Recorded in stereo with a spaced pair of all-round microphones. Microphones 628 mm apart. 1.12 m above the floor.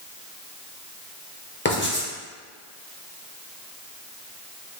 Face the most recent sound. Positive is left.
turn(degrees=15)  # may be behind; listen again after turning